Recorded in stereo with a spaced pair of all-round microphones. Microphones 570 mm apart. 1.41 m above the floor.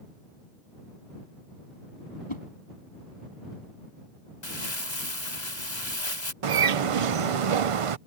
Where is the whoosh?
55° left (ahead or behind).